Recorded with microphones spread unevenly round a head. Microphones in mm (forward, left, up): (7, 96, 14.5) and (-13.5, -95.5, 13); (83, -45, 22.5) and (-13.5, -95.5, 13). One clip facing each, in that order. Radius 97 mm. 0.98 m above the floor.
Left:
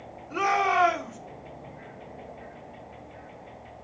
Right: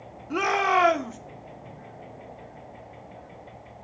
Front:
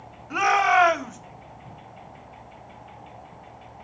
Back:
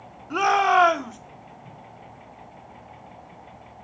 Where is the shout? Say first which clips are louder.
Right 2 dB, back 1 dB; 85° right, 2.5 m.